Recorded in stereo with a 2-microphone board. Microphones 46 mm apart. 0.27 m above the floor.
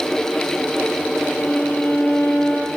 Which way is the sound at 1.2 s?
45° left (ahead or behind).